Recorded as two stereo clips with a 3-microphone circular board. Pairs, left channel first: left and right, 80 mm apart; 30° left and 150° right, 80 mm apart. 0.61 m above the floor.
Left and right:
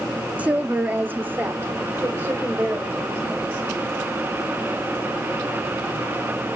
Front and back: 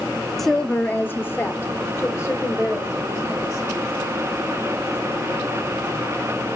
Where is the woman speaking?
55° right, 0.6 m; by 3.6 s 25° right, 2.5 m.